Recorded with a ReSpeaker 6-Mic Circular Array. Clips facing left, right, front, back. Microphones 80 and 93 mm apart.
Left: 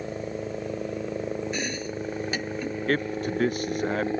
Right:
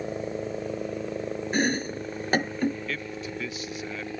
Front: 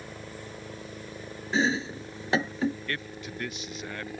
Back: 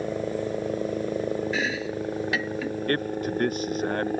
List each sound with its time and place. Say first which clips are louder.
0.0 s a helicopter: right 1 dB, back 14 dB; 170° right; by 4.2 s 145° left
1.5 s chopping: right 5 dB, front 1 dB; 55° right
2.9 s a man speaking: left 8 dB, back 11 dB; 135° left